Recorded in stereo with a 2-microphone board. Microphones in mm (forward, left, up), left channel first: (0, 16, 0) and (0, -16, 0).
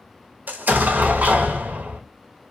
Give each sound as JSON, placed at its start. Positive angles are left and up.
{"t": 0.5, "sound": "an explosion", "side_deg": -60, "distance_m": 0.6}